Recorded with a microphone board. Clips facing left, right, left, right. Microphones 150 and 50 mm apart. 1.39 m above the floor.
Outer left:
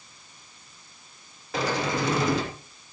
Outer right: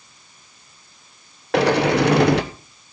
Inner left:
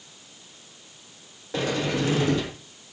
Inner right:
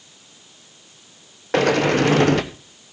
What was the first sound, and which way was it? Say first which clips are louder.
A sliding door: outer right 10 dB, inner right 9 dB; 70° right (ahead or behind).